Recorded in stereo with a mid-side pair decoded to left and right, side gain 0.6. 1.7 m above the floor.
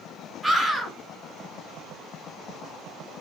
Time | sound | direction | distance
0.4 | a scream | straight ahead | 2.5 m